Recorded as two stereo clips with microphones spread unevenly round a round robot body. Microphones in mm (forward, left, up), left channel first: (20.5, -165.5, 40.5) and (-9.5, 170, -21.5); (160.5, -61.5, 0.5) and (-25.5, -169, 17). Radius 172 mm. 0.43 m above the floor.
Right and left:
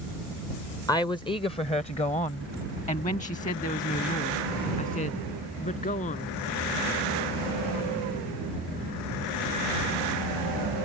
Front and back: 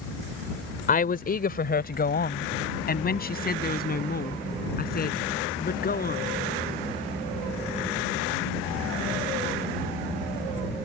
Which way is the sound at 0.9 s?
Straight ahead.